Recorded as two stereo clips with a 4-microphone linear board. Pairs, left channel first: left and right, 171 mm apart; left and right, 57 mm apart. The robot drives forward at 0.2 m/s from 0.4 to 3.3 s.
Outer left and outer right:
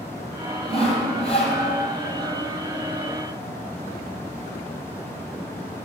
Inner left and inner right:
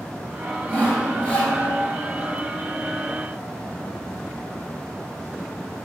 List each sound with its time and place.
0.7 s sawing: 35° left (ahead or behind), 2.5 m